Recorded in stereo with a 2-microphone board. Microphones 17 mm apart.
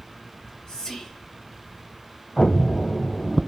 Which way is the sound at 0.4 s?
35° left (ahead or behind).